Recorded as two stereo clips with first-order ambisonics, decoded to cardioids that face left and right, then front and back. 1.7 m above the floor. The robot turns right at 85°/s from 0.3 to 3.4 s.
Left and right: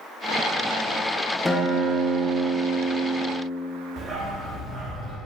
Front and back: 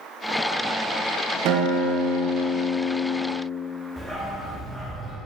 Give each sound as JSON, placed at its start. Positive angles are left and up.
{"t": 1.4, "sound": "a guitar", "azimuth_deg": 165, "distance_m": 0.9}
{"t": 4.0, "sound": "a dog barking", "azimuth_deg": -80, "distance_m": 1.3}